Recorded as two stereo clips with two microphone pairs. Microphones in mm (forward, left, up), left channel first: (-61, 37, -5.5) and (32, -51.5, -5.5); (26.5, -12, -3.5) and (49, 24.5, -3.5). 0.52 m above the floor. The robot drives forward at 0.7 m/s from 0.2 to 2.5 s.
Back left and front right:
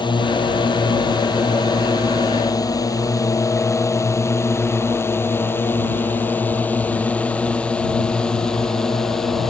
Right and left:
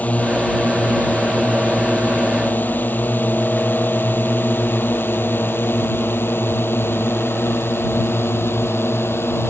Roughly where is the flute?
No flute in this recording.